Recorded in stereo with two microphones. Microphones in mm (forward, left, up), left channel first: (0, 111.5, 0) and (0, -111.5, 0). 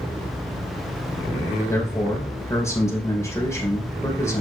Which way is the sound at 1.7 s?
15° left (ahead or behind).